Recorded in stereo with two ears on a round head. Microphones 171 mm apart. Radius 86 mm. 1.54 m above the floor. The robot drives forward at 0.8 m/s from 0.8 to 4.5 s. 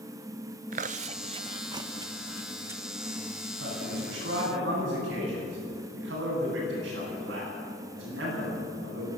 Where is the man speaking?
75° right (ahead or behind), 10 m; by 9.1 s 80° right, 10 m.